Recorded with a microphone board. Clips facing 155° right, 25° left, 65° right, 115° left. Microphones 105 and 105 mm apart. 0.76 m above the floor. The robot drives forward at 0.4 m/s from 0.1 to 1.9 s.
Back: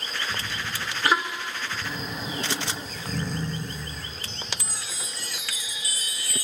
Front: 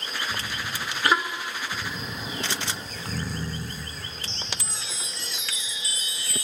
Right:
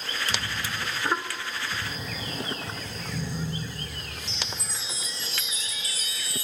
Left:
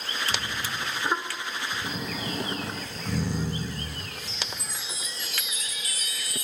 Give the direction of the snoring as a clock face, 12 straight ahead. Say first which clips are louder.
Back 1 dB, left 3 dB; 8 o'clock.